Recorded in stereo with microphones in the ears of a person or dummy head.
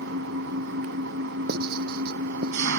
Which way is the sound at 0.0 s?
65° right (ahead or behind).